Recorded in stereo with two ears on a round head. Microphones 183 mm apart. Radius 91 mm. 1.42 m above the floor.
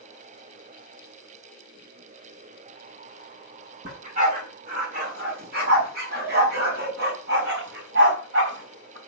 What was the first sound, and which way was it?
A dog barking, 40° right (ahead or behind).